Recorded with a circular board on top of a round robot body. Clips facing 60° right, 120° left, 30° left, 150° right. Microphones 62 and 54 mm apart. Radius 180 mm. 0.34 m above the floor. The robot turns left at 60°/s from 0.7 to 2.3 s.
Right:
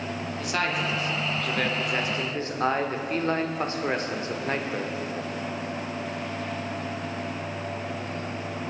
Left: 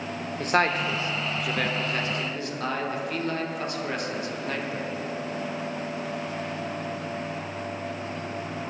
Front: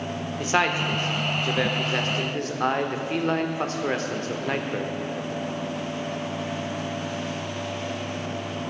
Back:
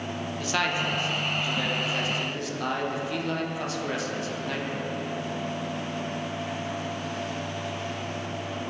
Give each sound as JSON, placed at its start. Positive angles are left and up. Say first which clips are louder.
{"t": 0.4, "sound": "a man speaking", "louder": "left 5 dB, front 4 dB", "azimuth_deg": 85, "distance_m": 1.9}